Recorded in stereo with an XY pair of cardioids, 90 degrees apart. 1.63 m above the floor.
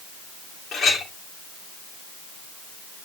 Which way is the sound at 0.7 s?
60° left.